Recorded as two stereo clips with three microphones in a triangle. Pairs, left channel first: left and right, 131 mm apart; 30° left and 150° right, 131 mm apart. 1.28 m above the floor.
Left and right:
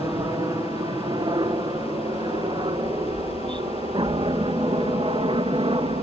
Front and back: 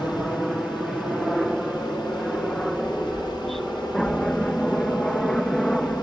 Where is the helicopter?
65° right; by 6.0 s 55° right.